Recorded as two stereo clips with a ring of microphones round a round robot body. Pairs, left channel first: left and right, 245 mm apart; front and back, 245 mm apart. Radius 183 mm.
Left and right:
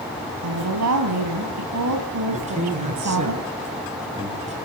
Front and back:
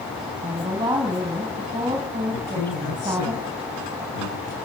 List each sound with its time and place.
0.4 s a woman speaking: 100° right, 4 m
2.3 s a man speaking: 25° right, 6.5 m